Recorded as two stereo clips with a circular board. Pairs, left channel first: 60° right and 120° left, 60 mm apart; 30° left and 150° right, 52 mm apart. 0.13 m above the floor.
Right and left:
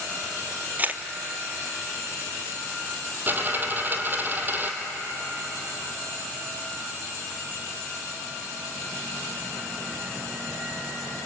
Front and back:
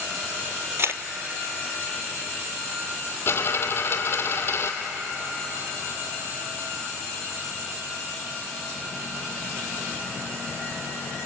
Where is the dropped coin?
65° left, 2 m.